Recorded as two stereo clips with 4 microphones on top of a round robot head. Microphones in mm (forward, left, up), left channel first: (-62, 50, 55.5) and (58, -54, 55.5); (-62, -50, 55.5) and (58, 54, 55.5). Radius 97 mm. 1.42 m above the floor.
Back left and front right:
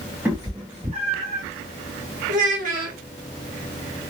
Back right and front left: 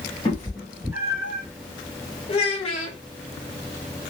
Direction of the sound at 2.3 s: 80° right.